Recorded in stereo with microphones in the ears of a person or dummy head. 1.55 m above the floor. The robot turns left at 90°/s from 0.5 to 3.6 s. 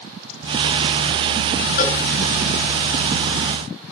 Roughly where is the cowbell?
Left.